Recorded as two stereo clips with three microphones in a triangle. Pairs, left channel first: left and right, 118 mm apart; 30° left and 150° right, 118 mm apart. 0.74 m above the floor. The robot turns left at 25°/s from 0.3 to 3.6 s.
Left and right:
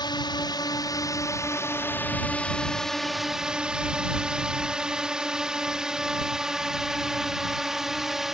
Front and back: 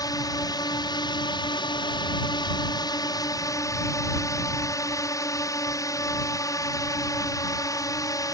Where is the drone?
65° left; by 8.3 s 5° right.